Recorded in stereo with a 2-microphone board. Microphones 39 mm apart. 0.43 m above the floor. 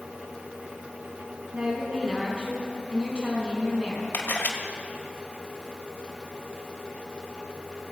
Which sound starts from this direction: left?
A camera shutter, at 4.1 s.